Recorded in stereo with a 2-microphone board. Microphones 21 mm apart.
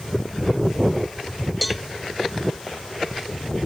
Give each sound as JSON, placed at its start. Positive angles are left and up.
{"t": 1.6, "sound": "a cowbell", "side_deg": -5}